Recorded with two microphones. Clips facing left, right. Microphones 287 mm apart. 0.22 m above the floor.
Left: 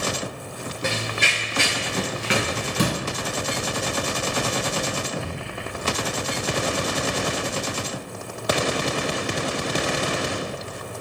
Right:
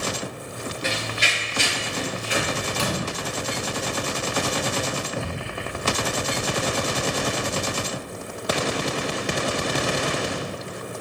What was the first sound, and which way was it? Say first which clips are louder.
Running footsteps: left 3 dB; 55° left (ahead or behind).